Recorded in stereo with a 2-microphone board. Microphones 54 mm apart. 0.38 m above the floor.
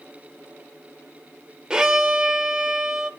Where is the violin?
15° right (ahead or behind), 1.0 m.